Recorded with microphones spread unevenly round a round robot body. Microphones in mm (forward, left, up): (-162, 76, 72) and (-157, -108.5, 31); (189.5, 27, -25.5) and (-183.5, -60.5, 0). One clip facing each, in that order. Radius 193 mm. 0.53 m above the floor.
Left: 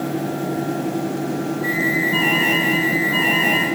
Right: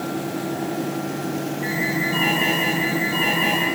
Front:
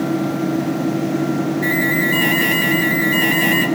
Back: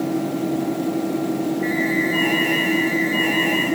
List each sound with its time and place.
1.6 s an alarm: 10° right, 5.5 m